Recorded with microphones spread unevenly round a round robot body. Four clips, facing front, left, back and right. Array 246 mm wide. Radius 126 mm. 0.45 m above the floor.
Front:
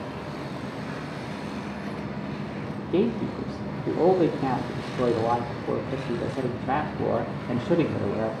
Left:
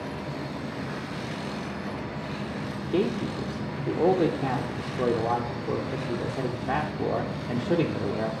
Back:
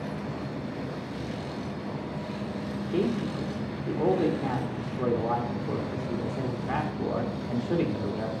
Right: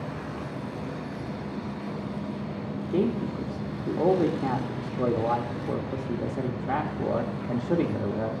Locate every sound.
2.9 s a man speaking: straight ahead, 0.9 m